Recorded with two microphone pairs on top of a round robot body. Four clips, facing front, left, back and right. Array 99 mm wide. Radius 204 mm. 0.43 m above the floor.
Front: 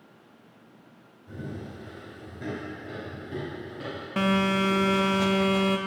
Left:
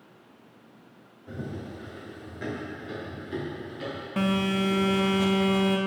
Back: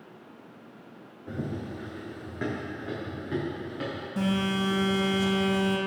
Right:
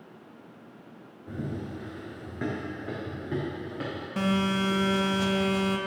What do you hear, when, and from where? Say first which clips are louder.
1.3 s running footsteps: right 2 dB, back 4 dB; 175° right, 2.5 m; by 4.1 s 125° right, 5.5 m
4.2 s a phone buzzing: left 1 dB, front 4 dB; 20° left, 1.1 m